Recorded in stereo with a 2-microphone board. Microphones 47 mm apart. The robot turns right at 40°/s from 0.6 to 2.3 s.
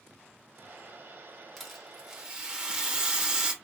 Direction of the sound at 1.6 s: 5° left (ahead or behind).